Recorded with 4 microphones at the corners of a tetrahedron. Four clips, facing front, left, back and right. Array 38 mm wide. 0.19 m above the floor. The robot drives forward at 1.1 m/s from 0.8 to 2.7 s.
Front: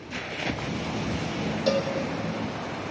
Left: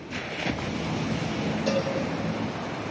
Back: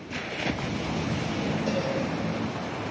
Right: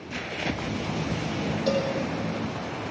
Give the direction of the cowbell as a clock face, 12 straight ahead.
1 o'clock.